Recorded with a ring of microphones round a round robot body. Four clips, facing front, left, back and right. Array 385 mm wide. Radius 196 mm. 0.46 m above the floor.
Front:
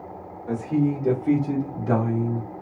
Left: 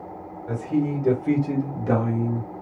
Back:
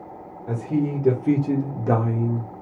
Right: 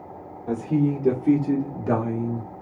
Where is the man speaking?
120° right, 1.8 m; by 2.5 s straight behind, 1.5 m.